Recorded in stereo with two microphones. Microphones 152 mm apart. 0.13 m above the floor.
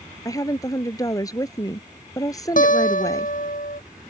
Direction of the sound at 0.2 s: 25° left (ahead or behind).